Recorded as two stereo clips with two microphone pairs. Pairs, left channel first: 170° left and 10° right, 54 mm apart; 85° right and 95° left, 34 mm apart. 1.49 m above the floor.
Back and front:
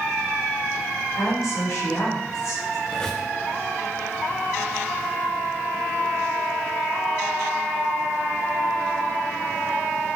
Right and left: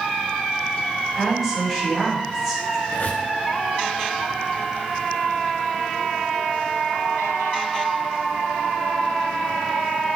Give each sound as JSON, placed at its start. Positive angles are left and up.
{"t": 1.1, "sound": "a woman speaking", "azimuth_deg": -175, "distance_m": 7.5}
{"t": 2.9, "sound": "a squeak", "azimuth_deg": -115, "distance_m": 3.0}